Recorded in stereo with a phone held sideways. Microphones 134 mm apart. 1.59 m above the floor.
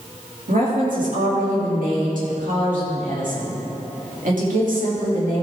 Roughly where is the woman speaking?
Right.